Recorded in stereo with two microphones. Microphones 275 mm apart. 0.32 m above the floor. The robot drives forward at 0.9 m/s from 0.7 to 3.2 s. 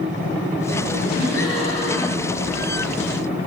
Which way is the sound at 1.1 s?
60° left (ahead or behind).